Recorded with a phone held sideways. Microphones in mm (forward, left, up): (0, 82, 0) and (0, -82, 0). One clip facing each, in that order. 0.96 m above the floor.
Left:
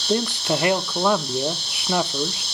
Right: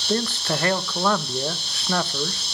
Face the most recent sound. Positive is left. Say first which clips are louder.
# left 2 dB
turn(degrees=15)  # may be behind; listen again after turning